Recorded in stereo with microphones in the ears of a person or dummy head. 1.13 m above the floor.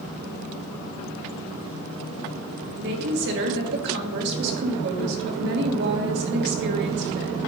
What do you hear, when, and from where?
2.8 s a woman speaking: 60° right (ahead or behind), 1.8 m